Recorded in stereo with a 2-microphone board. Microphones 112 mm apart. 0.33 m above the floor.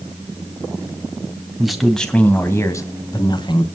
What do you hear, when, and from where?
1.6 s a man speaking: 5° right (ahead or behind), 2.5 m; by 3.7 s 45° left (ahead or behind), 2.5 m